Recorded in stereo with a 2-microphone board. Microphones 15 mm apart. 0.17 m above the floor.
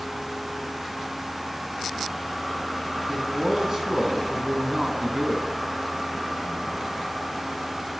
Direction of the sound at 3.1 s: 25° right (ahead or behind).